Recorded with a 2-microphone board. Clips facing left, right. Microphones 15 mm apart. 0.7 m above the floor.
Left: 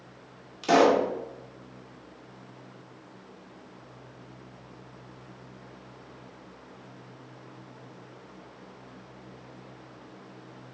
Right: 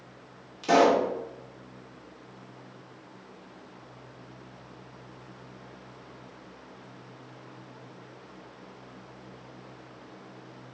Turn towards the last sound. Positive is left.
turn(degrees=10)  # may be behind; listen again after turning